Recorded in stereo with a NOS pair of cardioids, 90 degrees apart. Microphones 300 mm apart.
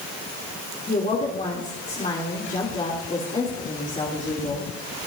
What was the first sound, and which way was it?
A woman speaking, 25° left.